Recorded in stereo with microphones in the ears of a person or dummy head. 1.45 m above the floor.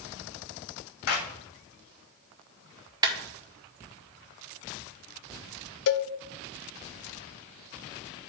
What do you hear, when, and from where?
1.1 s a clap: 80° left, 2.5 m
3.0 s a clap: 20° right (ahead or behind), 1.9 m
5.9 s a cowbell: 65° left (ahead or behind), 0.8 m